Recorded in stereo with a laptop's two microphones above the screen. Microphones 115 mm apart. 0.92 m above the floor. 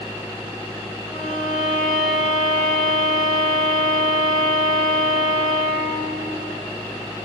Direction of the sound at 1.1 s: Centre (ahead or behind).